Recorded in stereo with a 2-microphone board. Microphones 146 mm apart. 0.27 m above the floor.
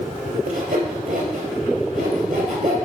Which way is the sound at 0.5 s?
75° right (ahead or behind).